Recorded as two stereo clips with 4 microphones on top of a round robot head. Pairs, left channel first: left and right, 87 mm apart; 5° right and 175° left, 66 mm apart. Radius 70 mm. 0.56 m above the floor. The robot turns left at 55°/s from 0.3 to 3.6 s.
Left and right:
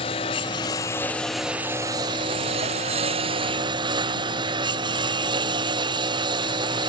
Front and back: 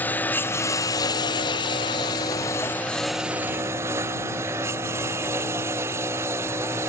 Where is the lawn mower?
60° left; by 6.9 s 125° right.